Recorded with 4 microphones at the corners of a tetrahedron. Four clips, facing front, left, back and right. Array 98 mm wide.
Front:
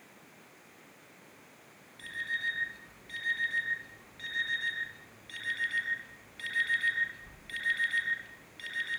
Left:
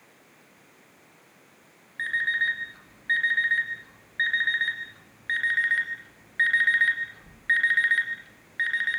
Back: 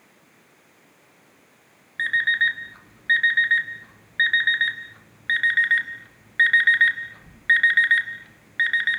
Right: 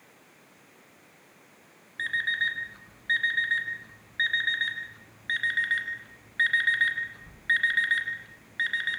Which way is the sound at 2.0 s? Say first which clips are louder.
Left 2 dB, back 15 dB; 175° left.